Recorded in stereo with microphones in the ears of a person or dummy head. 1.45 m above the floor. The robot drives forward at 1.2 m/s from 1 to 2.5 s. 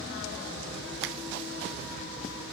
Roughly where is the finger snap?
Right.